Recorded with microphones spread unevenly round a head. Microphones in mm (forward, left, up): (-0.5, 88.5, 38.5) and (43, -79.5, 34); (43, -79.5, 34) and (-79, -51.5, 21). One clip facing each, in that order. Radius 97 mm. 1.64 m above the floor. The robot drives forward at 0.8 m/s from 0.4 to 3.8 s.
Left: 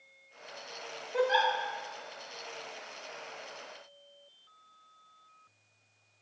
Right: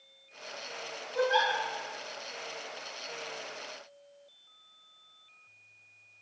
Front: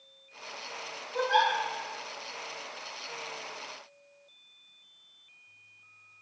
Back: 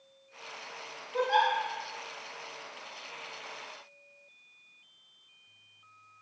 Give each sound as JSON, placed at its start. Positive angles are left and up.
{"t": 1.1, "sound": "a giggle", "azimuth_deg": 105, "distance_m": 0.9}